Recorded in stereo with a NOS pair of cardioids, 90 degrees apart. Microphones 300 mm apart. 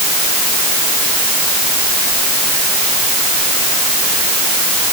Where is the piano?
I don't hear a piano.